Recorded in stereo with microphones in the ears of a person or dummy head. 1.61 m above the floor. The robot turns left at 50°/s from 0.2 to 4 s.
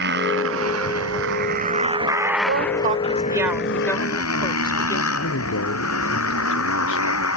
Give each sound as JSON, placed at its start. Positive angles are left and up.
{"t": 0.0, "sound": "a motorcycle", "azimuth_deg": -65}
{"t": 2.5, "sound": "a woman speaking", "azimuth_deg": -120}
{"t": 5.2, "sound": "a man speaking", "side_deg": 75}